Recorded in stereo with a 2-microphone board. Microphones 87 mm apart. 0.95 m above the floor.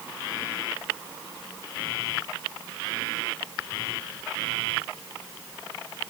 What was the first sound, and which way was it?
Only background noise.